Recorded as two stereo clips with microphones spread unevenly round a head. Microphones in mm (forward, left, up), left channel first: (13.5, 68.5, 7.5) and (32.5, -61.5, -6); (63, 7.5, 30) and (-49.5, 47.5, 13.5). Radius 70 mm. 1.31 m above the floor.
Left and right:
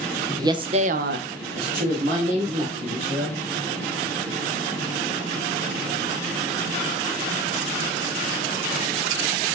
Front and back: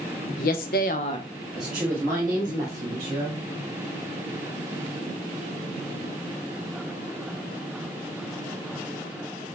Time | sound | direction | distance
0.4 | a woman speaking | 15° right | 0.8 m